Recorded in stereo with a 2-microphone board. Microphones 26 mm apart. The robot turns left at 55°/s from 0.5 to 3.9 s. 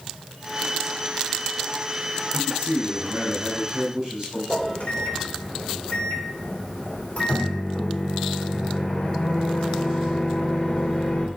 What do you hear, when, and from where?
2.3 s a man speaking: 75° right, 3 m; by 4.4 s 160° right, 3 m
4.5 s a microwave: 45° left (ahead or behind), 3 m